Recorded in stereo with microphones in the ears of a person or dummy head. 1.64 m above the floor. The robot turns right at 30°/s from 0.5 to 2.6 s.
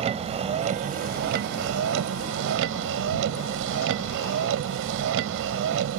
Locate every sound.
0.0 s a vehicle: 145° right; by 6.0 s 80° right